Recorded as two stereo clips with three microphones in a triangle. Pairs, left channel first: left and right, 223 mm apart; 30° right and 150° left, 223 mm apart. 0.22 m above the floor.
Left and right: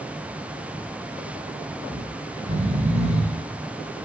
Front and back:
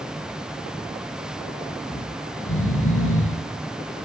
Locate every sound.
1.9 s snoring: 30° right, 4 m